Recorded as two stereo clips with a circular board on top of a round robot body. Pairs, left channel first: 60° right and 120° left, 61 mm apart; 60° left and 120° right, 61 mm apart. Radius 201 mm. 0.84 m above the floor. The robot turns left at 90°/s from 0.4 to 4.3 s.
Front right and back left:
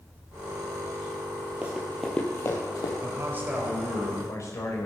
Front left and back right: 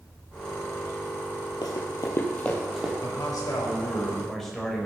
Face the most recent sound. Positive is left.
turn(degrees=-25)